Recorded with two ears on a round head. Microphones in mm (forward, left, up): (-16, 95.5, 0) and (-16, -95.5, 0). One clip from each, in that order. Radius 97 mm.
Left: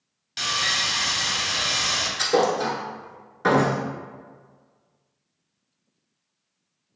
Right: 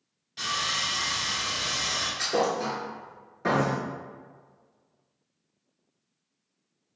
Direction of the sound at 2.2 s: 20° left (ahead or behind).